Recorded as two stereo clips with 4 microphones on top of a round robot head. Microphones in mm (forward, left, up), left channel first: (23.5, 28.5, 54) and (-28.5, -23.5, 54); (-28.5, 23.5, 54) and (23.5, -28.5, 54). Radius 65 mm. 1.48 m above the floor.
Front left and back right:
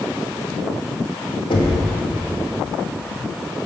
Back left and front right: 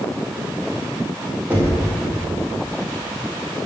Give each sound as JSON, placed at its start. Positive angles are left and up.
{"t": 1.5, "sound": "knocking", "azimuth_deg": 25, "distance_m": 1.6}